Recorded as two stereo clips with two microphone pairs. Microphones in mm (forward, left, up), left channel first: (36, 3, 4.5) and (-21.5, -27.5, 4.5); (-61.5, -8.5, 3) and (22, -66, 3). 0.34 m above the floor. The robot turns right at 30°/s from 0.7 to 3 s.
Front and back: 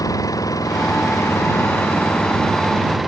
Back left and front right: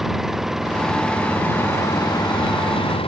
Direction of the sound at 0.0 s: 55° left.